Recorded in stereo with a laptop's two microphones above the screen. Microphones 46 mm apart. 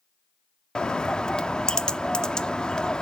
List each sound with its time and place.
0.8 s a bird: 20° left (ahead or behind), 0.6 m